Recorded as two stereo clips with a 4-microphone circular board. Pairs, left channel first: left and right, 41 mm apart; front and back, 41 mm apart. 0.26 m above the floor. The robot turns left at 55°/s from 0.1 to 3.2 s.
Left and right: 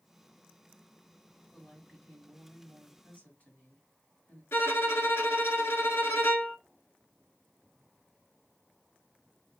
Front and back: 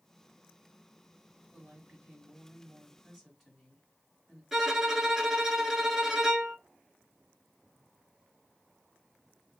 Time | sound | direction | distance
1.5 | a woman speaking | 175° left | 2 m
4.5 | a violin | 100° left | 0.9 m